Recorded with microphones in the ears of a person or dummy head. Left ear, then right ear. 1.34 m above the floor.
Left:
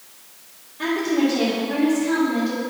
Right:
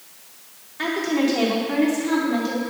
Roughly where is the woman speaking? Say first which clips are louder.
Left 1 dB; right.